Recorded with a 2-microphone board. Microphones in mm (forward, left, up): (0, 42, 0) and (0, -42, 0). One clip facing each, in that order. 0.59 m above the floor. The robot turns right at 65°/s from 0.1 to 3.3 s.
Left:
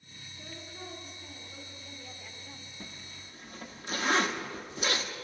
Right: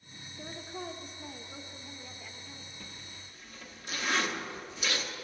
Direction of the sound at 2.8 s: 30° left (ahead or behind).